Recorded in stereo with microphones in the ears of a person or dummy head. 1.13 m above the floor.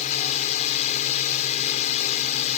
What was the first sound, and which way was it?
A drone, 40° left (ahead or behind).